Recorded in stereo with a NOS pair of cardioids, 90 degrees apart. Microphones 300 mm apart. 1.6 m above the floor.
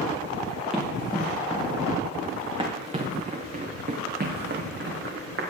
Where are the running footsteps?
Straight ahead, 5.5 m; by 5.4 s 45° right, 5 m.